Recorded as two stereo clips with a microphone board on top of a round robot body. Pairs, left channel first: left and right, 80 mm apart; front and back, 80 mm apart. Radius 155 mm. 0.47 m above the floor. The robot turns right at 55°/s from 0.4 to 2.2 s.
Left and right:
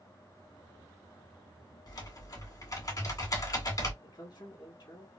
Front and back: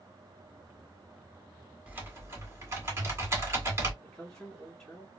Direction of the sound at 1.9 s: 110° left.